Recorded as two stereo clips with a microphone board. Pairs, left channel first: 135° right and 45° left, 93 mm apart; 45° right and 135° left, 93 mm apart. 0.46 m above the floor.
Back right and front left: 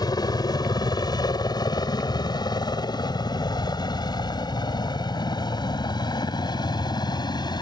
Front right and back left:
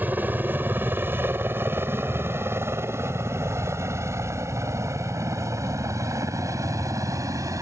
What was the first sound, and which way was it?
A helicopter, 160° right.